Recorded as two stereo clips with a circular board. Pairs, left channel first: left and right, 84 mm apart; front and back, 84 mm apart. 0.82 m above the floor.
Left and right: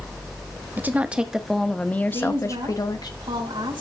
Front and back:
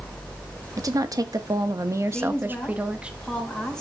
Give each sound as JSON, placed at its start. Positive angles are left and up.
{"t": 0.8, "sound": "a woman speaking", "azimuth_deg": -150, "distance_m": 1.2}
{"t": 2.1, "sound": "a woman speaking", "azimuth_deg": -80, "distance_m": 4.5}